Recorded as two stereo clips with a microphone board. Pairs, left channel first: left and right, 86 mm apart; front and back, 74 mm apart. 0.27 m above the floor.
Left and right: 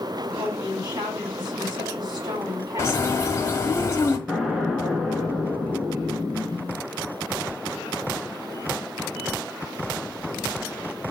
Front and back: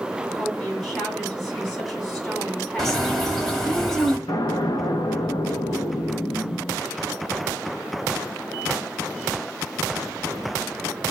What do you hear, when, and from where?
0.2 s a woman speaking: 80° right, 2.5 m
2.8 s a bird: 85° left, 0.9 m
4.3 s an explosion: 5° right, 0.6 m